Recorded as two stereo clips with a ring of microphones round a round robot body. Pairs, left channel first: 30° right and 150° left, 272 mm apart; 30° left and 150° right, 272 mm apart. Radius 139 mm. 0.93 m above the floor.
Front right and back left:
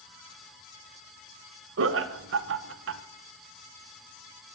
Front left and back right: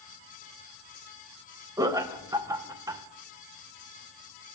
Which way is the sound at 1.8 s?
135° left.